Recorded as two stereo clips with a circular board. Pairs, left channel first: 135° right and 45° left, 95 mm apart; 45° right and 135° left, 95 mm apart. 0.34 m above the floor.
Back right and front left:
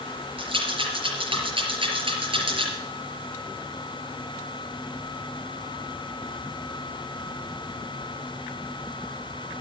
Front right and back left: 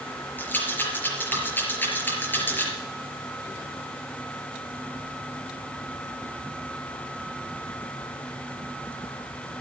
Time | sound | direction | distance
0.4 | a rattle | 25° left | 4.5 m